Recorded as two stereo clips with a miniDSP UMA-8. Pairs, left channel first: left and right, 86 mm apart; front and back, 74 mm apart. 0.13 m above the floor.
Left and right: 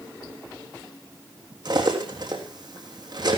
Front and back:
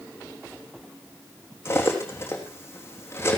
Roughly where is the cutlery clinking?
Ahead right.